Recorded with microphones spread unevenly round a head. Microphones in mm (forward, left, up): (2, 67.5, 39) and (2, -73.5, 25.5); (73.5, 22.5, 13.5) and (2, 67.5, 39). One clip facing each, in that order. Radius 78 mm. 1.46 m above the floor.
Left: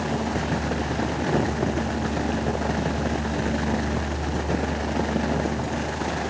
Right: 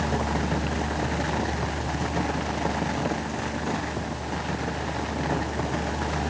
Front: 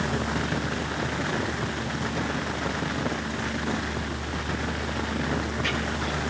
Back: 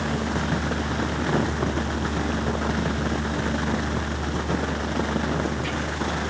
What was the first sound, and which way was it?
Only background noise.